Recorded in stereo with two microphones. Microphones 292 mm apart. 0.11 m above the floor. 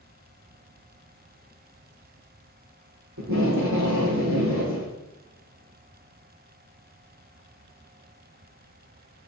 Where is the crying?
No crying in this recording.